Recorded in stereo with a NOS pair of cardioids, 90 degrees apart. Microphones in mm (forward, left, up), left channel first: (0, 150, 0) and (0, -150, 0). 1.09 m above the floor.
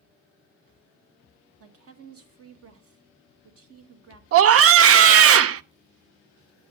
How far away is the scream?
About 0.6 m.